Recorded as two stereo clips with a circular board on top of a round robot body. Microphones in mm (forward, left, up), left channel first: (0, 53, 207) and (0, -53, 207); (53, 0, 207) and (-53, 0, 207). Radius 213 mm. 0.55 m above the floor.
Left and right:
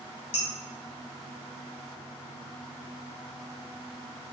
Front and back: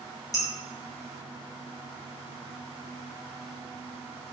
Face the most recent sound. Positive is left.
turn(degrees=60)